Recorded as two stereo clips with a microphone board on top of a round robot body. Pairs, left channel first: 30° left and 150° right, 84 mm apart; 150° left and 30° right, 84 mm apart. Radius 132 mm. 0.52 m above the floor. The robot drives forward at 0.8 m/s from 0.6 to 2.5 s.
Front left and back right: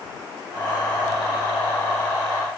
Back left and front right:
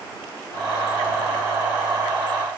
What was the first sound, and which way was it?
Only background noise.